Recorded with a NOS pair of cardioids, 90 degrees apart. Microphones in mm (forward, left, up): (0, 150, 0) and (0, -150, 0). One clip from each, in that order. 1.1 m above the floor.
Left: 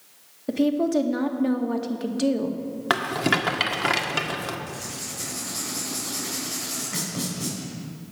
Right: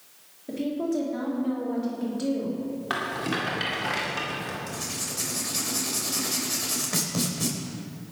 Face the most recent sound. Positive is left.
turn(degrees=-40)